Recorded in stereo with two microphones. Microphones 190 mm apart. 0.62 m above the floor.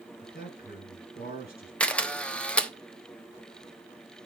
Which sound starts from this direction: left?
A man speaking, at 0.2 s.